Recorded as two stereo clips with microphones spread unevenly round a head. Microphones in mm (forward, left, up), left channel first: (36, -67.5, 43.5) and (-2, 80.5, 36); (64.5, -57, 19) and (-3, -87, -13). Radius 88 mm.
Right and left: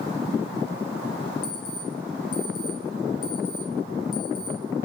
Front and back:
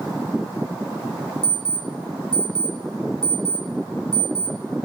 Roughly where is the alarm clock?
Right.